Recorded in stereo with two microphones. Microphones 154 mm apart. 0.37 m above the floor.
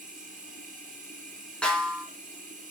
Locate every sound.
0.0 s running water: 60° right (ahead or behind), 4.5 m
1.6 s a snare drum: 5° left (ahead or behind), 3 m